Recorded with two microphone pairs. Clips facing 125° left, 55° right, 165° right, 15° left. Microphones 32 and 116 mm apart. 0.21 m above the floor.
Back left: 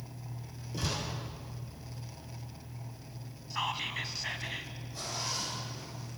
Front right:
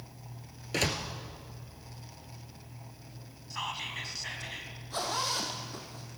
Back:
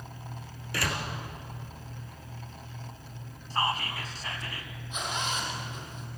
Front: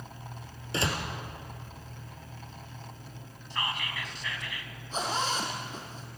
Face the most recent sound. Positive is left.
turn(degrees=-40)